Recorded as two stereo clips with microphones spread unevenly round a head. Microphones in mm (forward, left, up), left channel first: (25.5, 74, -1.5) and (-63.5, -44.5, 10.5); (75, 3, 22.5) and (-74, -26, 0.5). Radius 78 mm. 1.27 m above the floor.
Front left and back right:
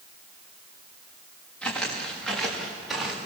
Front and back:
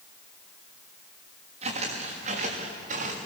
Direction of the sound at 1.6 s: 140° left.